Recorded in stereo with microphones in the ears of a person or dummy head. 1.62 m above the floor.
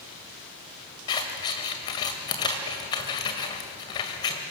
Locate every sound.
1.1 s scissors: 20° left (ahead or behind), 2.0 m